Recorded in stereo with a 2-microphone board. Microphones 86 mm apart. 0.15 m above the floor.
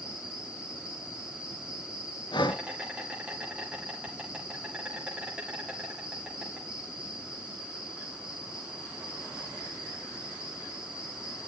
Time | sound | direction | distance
0.0 | an insect | 15° right (ahead or behind) | 5 m
2.3 | breathing | 60° left (ahead or behind) | 0.6 m